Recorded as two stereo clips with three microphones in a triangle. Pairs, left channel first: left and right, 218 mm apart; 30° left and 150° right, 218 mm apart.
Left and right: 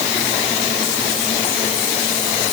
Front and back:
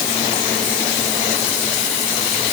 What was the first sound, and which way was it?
Only background noise.